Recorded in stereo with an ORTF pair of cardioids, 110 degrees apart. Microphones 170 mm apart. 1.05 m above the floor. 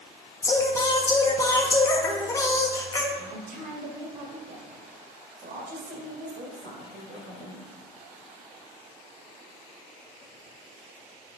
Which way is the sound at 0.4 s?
20° left.